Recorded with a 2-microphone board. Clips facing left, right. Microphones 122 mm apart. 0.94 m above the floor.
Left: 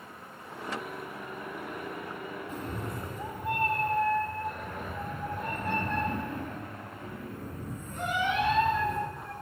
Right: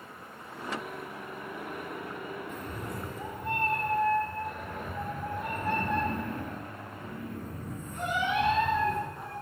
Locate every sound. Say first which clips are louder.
2.5 s a cat meowing: left 1 dB; 35° left (ahead or behind), 0.8 m; by 9.3 s 20° right (ahead or behind), 4 m